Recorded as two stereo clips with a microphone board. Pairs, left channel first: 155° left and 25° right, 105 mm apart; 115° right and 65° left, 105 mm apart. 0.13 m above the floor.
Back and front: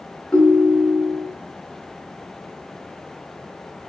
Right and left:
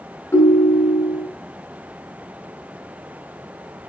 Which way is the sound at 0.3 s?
130° right.